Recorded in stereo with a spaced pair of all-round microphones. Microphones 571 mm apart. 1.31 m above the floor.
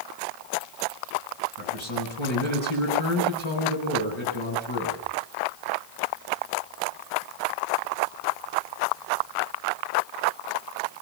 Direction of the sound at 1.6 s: 55° left (ahead or behind).